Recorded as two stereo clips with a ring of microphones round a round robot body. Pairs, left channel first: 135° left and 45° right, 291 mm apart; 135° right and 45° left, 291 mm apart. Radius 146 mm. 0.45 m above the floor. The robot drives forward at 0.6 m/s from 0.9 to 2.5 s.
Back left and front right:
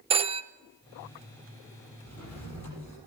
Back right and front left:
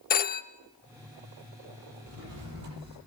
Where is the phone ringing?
100° right, 0.6 m.